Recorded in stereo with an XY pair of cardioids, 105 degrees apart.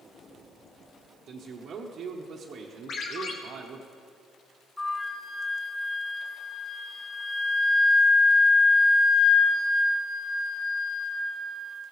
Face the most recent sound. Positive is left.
turn(degrees=20)